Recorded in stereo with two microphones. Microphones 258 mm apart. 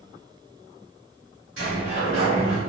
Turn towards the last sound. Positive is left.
turn(degrees=-55)  # may be behind; listen again after turning